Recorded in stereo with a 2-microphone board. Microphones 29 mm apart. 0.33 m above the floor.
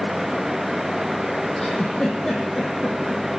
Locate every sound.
1.6 s a giggle: 20° left (ahead or behind), 3 m